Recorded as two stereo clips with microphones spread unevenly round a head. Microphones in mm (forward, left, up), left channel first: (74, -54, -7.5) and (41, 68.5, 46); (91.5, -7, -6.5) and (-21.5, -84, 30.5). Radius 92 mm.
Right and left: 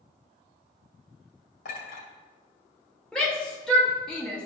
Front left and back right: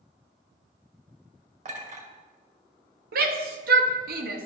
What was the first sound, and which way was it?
A clink, 115° right.